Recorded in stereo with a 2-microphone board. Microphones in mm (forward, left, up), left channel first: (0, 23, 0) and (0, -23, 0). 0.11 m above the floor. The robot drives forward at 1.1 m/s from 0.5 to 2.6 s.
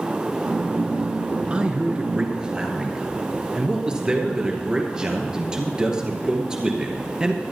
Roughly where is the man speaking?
Right.